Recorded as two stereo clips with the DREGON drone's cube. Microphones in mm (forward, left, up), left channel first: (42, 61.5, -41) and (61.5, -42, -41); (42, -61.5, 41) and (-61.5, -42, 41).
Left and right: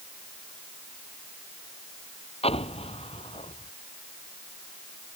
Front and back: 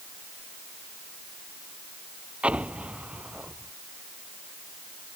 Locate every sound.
2.4 s an explosion: 90° left